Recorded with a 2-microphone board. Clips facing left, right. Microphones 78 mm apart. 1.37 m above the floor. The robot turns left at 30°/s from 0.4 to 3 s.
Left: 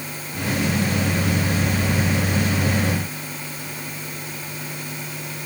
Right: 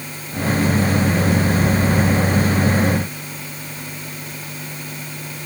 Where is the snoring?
I don't hear snoring.